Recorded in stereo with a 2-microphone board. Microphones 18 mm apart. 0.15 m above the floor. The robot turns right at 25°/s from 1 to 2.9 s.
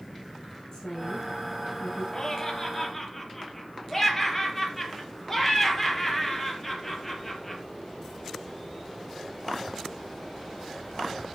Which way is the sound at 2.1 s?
20° left (ahead or behind).